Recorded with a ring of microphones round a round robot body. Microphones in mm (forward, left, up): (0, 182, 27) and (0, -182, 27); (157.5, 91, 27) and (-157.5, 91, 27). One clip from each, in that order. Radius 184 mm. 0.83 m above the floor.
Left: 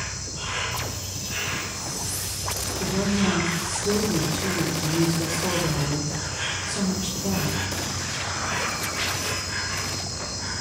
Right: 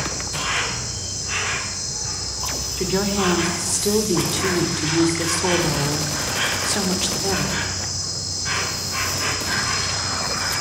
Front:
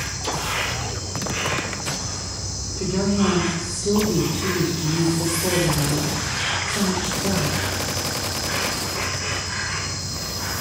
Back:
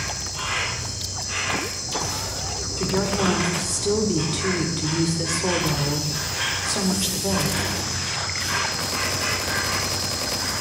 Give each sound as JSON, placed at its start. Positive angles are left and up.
{"t": 0.0, "sound": "an insect", "azimuth_deg": -110, "distance_m": 3.0}
{"t": 2.8, "sound": "a woman speaking", "azimuth_deg": -120, "distance_m": 2.5}